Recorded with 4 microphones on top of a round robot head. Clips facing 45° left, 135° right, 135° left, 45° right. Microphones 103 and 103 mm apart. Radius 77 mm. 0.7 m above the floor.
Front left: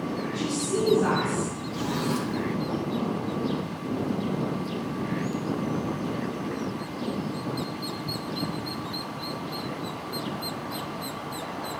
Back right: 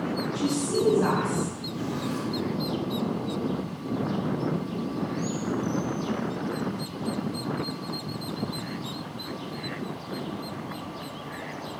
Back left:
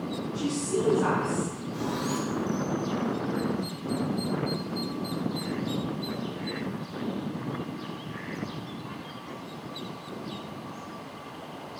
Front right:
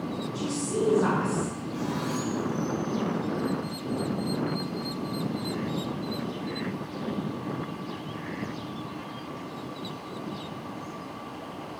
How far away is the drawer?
About 1.1 m.